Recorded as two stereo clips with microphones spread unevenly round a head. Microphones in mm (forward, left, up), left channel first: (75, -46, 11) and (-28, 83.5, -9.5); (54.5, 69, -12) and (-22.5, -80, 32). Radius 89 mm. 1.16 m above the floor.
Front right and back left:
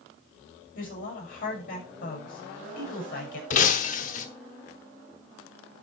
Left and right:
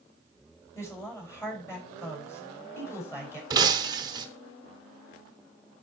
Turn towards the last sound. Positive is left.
turn(degrees=-70)